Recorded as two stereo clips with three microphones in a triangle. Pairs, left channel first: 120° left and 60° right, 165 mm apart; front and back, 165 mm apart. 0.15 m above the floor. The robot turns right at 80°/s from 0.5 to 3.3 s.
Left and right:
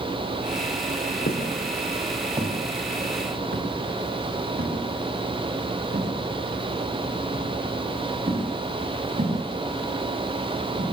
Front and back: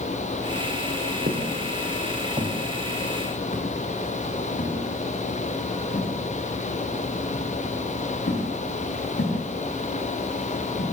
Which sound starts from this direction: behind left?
Footsteps, at 1.3 s.